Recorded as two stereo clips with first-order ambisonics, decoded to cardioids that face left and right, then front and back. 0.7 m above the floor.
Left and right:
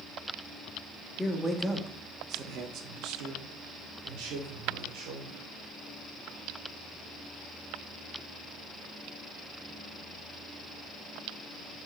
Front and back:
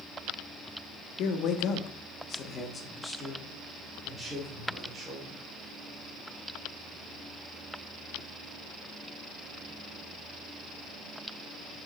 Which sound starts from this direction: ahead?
A man speaking, at 1.2 s.